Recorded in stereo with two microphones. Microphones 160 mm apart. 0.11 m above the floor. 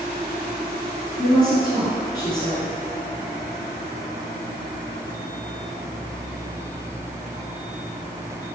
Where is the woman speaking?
20° left (ahead or behind), 1.1 m.